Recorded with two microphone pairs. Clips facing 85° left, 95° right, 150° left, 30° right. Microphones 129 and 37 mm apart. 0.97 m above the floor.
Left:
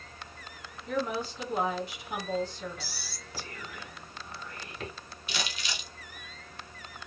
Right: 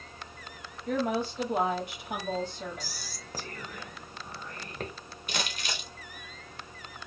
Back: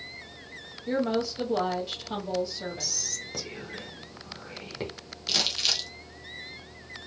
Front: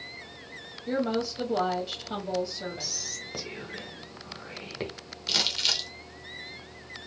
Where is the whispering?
95° right, 0.9 m.